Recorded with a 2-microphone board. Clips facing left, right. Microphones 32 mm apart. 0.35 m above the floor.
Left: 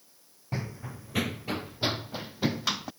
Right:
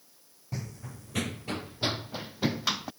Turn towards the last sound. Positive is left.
turn(degrees=-5)  # may be behind; listen again after turning